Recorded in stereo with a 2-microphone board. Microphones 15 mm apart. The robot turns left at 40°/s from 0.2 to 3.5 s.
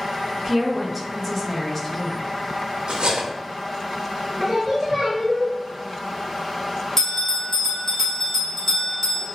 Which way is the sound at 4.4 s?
15° right (ahead or behind).